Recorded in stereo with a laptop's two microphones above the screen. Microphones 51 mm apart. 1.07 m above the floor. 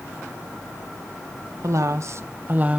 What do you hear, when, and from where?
1.6 s a woman speaking: 65° right (ahead or behind), 0.9 m; by 2.8 s 25° right (ahead or behind), 0.7 m